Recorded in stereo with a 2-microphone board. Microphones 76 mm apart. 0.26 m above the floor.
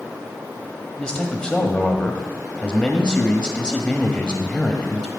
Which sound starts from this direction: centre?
A man speaking, at 1.0 s.